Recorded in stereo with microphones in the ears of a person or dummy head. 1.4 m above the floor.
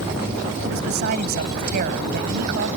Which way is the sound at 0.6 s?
60° right (ahead or behind).